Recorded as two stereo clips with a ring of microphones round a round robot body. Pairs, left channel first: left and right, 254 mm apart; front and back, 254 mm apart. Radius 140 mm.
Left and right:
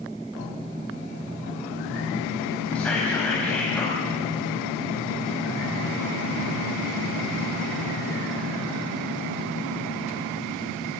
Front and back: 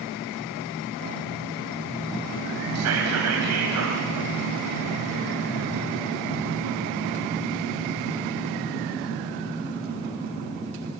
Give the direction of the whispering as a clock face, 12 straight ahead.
6 o'clock.